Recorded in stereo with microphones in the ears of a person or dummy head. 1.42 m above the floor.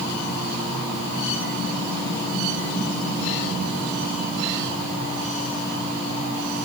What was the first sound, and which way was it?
Only background noise.